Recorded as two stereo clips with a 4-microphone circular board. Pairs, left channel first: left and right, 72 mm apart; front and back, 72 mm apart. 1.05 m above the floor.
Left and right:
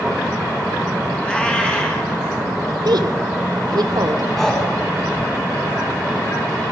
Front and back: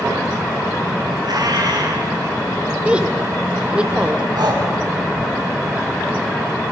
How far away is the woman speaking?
About 2.5 m.